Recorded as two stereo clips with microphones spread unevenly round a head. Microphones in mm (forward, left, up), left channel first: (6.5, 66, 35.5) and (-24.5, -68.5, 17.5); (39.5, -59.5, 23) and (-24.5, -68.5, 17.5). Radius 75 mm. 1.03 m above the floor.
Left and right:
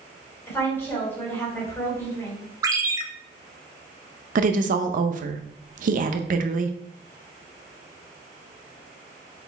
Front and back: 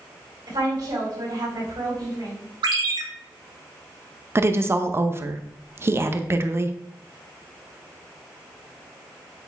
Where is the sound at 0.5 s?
150° left, 4 m.